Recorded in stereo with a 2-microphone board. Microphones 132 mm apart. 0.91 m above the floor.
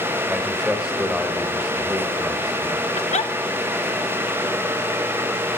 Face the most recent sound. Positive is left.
turn(degrees=60)  # may be behind; listen again after turning